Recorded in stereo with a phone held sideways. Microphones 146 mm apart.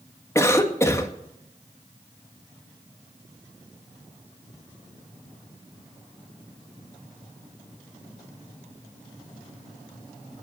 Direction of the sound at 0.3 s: 20° left (ahead or behind).